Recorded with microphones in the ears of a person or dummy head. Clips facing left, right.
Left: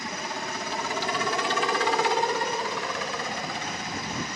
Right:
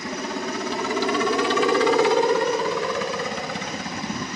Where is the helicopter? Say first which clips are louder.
Right 6 dB; 60° right (ahead or behind).